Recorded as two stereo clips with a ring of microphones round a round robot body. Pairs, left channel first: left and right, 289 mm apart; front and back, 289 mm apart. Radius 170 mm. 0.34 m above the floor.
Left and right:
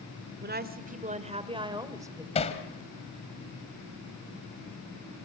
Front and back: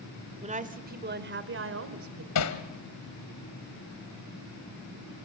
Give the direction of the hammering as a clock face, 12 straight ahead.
11 o'clock.